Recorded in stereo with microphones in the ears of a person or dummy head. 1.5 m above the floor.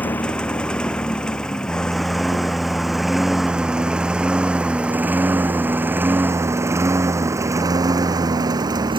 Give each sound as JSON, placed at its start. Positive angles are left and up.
{"t": 0.0, "sound": "a lawn mower", "side_deg": 10}